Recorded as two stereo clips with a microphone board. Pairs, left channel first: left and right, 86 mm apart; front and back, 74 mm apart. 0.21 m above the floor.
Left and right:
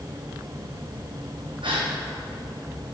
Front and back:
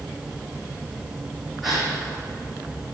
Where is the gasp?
95° right, 3 m.